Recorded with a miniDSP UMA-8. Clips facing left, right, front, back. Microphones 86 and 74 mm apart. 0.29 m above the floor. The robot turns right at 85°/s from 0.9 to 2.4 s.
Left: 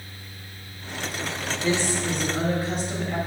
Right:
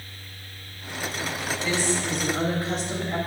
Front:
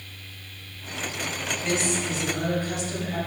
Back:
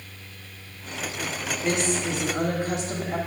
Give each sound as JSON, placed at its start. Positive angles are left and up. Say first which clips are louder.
{"t": 1.6, "sound": "a woman speaking", "louder": "left 2 dB, back 2 dB", "azimuth_deg": 120, "distance_m": 1.0}